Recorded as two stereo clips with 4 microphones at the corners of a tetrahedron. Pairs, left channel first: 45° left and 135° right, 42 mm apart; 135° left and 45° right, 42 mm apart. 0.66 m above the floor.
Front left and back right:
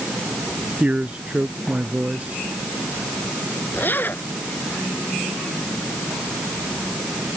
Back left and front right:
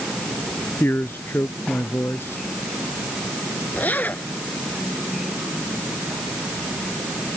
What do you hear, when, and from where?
0.8 s a man speaking: 165° left
3.7 s a zipper: 90° left